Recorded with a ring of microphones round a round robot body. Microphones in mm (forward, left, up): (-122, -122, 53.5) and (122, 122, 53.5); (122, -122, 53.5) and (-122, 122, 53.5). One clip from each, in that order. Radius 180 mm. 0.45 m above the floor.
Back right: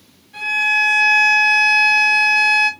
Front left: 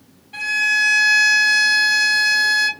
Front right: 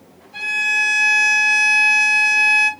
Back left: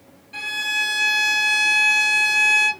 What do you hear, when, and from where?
0.3 s a violin: 100° left, 3 m